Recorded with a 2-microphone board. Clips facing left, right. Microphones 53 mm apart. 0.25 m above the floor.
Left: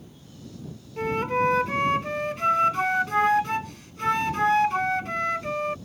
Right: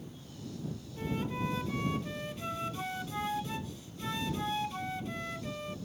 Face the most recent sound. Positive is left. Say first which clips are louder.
# left 12 dB
turn(degrees=60)  # may be behind; listen again after turning